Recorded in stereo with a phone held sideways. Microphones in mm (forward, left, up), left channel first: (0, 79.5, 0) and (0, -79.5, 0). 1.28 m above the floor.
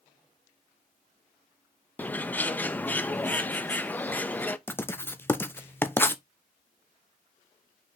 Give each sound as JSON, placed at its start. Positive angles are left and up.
{"t": 2.0, "sound": "a bird", "side_deg": 10, "distance_m": 0.7}
{"t": 4.7, "sound": "writing", "side_deg": 15, "distance_m": 0.7}